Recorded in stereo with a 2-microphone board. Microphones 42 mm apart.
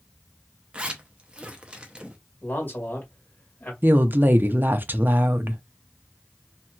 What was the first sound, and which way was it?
A zipper, 20° right (ahead or behind).